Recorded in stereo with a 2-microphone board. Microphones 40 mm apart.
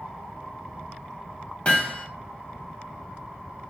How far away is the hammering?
About 3 m.